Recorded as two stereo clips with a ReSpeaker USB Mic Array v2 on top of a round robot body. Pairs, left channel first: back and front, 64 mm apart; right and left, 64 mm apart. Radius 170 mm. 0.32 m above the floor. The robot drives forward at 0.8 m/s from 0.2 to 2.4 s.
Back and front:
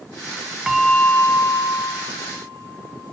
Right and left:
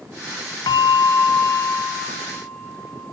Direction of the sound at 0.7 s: 85° right.